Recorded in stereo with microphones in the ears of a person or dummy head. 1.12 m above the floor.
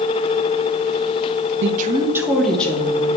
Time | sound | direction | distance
1.6 | a woman speaking | 60° right (ahead or behind) | 0.6 m